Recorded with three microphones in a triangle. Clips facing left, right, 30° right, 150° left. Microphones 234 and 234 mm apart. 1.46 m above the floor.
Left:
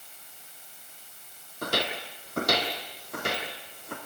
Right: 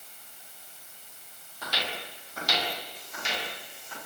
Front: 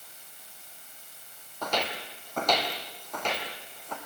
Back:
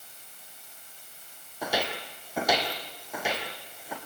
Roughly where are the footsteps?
Left.